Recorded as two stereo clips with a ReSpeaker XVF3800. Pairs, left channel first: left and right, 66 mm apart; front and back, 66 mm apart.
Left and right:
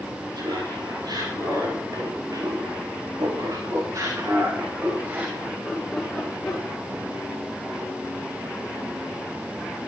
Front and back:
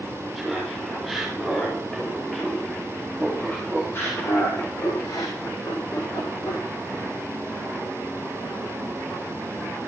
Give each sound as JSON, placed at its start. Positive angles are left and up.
{"t": 0.3, "sound": "laughter", "azimuth_deg": -90, "distance_m": 6.5}